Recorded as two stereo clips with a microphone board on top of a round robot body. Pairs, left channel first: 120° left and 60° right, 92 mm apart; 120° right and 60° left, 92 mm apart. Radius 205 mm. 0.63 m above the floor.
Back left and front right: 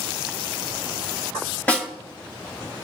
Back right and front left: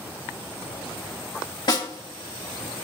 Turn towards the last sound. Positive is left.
turn(degrees=-165)